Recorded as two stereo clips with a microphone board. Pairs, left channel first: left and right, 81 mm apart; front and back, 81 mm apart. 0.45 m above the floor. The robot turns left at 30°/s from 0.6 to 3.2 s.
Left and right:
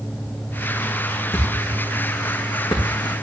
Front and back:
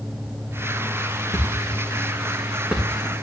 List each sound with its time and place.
1.3 s a thud: 150° left, 3.5 m; by 3.1 s 95° left, 3.5 m